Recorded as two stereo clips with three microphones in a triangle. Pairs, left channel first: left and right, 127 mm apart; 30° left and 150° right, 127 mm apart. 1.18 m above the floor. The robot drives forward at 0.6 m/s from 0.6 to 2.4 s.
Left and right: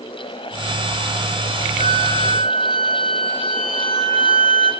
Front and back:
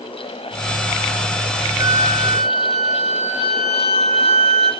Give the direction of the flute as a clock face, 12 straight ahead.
3 o'clock.